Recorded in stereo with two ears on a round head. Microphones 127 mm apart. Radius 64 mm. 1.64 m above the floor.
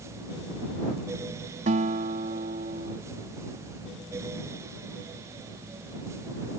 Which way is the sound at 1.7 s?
55° right (ahead or behind).